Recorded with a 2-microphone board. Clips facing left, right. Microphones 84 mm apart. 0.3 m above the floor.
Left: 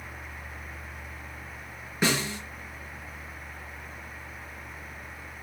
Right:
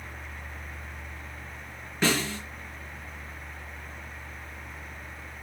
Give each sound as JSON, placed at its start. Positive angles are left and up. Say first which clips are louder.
{"t": 2.0, "sound": "a snare drum", "louder": "right 1 dB", "side_deg": 10, "distance_m": 5.5}